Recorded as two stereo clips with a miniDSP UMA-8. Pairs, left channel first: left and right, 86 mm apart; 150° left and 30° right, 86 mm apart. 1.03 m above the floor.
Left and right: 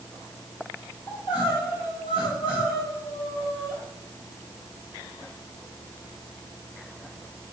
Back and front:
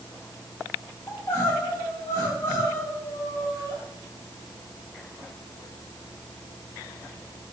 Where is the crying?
95° left, 5 m.